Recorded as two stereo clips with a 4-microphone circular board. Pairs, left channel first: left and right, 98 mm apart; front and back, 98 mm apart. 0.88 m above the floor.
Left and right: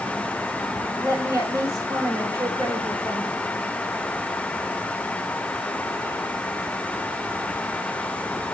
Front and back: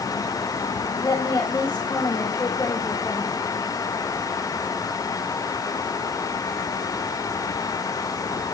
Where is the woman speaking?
50° right, 2.5 m.